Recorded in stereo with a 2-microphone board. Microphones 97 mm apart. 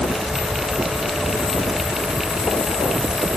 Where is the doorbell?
No doorbell in this recording.